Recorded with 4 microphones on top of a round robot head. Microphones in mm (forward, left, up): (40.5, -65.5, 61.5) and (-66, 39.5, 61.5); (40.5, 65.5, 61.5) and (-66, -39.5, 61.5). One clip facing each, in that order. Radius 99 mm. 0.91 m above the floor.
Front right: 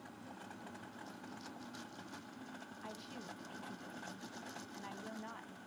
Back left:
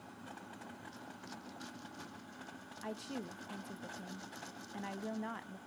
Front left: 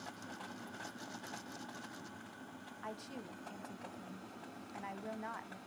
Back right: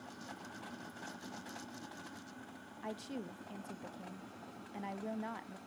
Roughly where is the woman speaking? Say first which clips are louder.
Back left 9 dB, back right 4 dB; behind.